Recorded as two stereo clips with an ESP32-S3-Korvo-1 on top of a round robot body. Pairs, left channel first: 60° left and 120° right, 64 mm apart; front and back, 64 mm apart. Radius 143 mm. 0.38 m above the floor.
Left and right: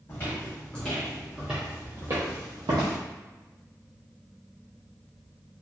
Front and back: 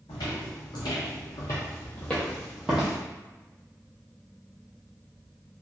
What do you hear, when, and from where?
0.1 s footsteps: straight ahead, 1.1 m; by 3.0 s 105° right, 0.8 m